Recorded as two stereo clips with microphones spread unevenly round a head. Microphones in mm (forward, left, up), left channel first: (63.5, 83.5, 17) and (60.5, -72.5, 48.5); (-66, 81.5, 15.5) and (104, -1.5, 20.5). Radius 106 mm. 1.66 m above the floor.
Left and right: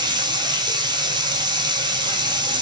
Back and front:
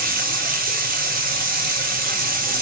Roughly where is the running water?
Ahead right.